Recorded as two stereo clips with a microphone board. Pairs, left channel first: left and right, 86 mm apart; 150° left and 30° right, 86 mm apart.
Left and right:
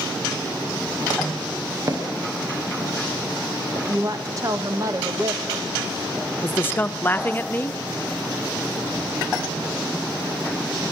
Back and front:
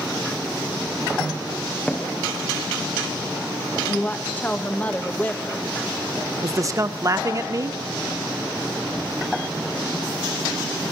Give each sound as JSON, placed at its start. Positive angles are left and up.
{"t": 1.9, "sound": "footsteps", "azimuth_deg": -140, "distance_m": 4.0}
{"t": 3.9, "sound": "a woman speaking", "azimuth_deg": -140, "distance_m": 1.7}
{"t": 6.4, "sound": "a man speaking", "azimuth_deg": 20, "distance_m": 1.0}